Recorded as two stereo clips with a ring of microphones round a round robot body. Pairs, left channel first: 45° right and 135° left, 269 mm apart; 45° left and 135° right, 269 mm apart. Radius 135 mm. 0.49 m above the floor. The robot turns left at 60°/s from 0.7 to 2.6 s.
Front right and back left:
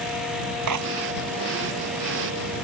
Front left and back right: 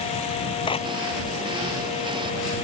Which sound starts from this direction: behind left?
A clap, at 0.7 s.